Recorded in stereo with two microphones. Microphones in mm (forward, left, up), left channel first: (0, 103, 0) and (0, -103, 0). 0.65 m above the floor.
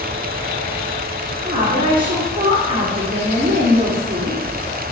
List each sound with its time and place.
1.4 s a woman speaking: 45° right (ahead or behind), 1.3 m